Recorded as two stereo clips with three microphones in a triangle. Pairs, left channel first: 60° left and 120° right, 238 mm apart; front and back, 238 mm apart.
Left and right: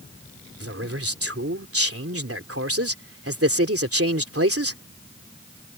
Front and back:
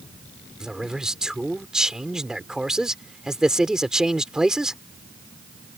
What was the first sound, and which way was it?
A man speaking, 95° right.